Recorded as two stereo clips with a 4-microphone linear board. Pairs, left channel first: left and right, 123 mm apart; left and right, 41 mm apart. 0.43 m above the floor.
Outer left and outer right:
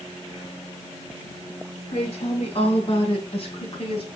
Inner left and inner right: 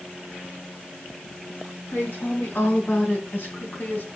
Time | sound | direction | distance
1.9 | a woman speaking | 55° left (ahead or behind) | 3.5 m